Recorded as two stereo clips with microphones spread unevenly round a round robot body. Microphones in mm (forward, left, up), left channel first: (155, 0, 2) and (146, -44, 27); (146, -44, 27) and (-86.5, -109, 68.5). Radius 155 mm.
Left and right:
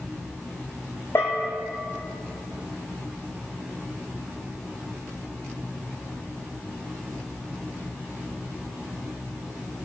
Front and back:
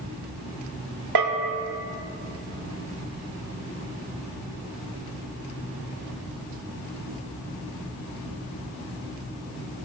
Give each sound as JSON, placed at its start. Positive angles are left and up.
{"t": 1.1, "sound": "a bell", "azimuth_deg": 165, "distance_m": 0.7}